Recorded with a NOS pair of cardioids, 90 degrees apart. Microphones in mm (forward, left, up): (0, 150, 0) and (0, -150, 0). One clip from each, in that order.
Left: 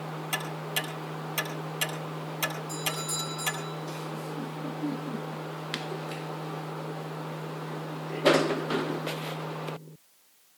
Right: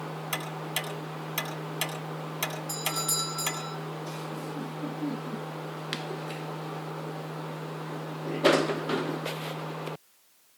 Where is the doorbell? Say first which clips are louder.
Right 2 dB; 60° right, 3.5 m.